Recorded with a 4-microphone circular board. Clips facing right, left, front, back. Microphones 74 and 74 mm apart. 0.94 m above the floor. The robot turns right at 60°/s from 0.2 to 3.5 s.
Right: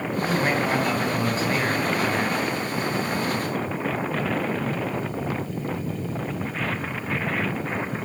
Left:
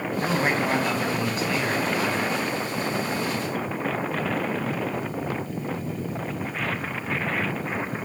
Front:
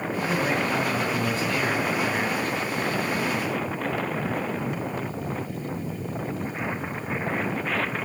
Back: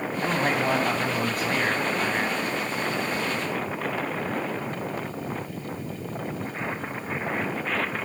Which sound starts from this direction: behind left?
A man speaking, at 0.2 s.